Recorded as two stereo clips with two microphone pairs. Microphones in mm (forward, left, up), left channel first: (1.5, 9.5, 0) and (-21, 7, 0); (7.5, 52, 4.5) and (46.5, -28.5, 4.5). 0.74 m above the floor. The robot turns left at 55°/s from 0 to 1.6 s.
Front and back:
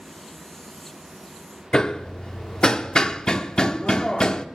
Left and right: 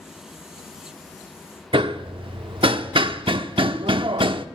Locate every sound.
1.7 s hammering: 45° right, 0.6 m